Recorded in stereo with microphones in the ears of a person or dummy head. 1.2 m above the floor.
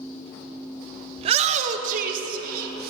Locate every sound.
1.2 s a shout: 30° right (ahead or behind), 0.8 m; by 2.9 s 55° right (ahead or behind), 2 m